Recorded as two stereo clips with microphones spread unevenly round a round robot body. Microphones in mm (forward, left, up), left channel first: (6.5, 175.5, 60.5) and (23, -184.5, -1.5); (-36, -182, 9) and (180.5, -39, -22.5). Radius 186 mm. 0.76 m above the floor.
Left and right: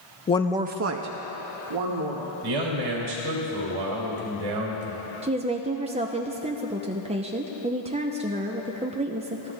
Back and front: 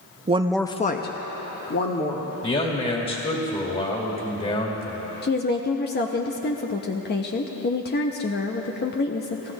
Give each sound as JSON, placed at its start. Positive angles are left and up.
{"t": 0.3, "sound": "a woman speaking", "azimuth_deg": 20, "distance_m": 0.5}
{"t": 2.4, "sound": "a man speaking", "azimuth_deg": -90, "distance_m": 2.5}
{"t": 5.2, "sound": "a woman speaking", "azimuth_deg": -125, "distance_m": 0.8}